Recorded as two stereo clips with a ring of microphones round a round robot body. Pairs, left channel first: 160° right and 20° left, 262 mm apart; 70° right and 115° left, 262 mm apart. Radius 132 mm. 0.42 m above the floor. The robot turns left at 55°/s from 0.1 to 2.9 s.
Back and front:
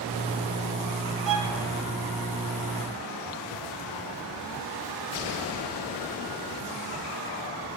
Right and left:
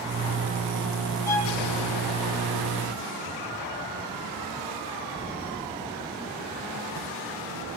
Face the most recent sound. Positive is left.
turn(degrees=-80)